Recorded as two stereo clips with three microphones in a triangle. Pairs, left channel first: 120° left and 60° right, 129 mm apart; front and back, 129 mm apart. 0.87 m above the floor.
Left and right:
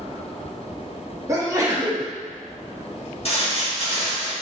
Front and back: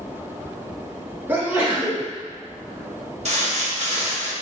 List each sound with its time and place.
1.3 s a sneeze: 110° right, 1.2 m
3.2 s crumpling: 155° left, 1.2 m